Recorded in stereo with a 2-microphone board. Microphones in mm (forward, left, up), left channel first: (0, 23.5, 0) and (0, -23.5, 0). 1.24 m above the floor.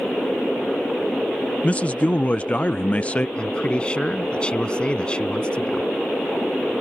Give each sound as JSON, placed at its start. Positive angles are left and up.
{"t": 1.6, "sound": "a man speaking", "side_deg": 30}
{"t": 3.4, "sound": "a man speaking", "side_deg": 20}